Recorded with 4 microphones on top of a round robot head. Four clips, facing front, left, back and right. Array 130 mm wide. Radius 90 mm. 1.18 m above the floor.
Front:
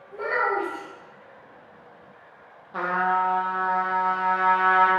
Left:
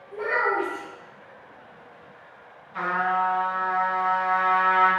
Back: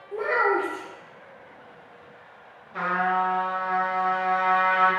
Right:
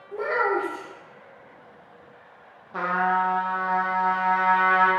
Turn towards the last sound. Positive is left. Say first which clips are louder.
# right 1 dB, front 1 dB
turn(degrees=-45)